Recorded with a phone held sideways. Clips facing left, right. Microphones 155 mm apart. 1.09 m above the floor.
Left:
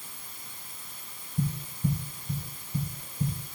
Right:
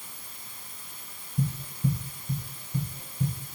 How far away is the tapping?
About 8 m.